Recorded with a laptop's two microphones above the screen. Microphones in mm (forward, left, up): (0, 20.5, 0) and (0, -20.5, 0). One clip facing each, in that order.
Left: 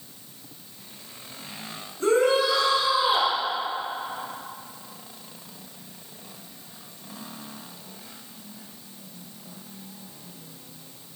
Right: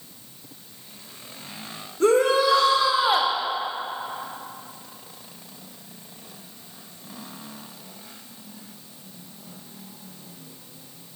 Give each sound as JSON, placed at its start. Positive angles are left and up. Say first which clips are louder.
{"t": 2.0, "sound": "a shout", "louder": "right 2 dB", "side_deg": -70, "distance_m": 3.0}